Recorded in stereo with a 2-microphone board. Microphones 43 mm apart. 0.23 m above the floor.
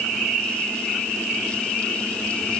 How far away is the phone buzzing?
I don't hear a phone buzzing.